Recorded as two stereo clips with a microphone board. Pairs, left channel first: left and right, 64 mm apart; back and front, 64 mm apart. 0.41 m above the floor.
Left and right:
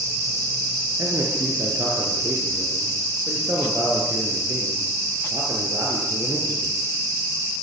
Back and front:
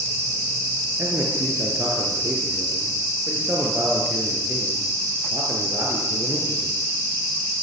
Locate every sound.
1.0 s a man speaking: 50° right, 6 m